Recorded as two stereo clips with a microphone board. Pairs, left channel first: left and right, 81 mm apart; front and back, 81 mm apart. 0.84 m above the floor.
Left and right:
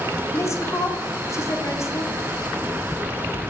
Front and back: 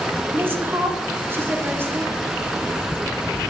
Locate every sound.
0.3 s a woman speaking: 130° left, 1.2 m